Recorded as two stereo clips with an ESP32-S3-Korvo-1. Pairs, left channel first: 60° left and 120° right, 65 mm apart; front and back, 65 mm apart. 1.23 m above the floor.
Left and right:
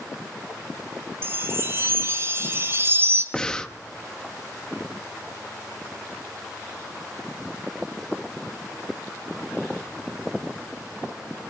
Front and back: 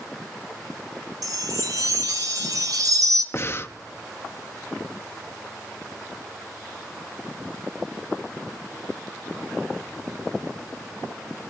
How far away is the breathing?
About 0.6 m.